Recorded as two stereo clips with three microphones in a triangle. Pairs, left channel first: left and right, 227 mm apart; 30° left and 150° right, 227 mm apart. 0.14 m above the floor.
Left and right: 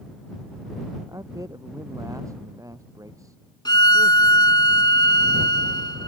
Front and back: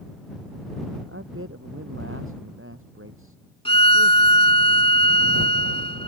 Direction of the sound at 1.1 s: 165° right.